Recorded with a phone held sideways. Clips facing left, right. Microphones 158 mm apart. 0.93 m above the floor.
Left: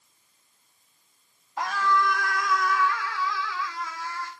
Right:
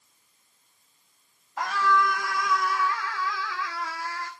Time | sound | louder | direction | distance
1.6 | a scream | right 1 dB | centre (ahead or behind) | 2.5 m